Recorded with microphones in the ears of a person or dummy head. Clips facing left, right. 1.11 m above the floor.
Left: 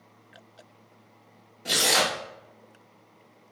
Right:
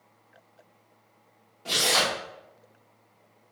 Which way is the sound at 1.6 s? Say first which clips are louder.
Left 1 dB; 25° left (ahead or behind).